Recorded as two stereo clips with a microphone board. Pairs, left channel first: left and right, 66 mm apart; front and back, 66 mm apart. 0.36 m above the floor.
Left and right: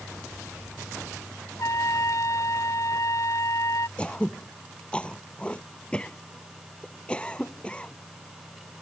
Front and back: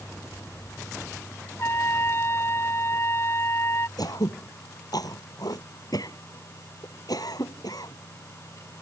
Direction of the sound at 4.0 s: 20° left.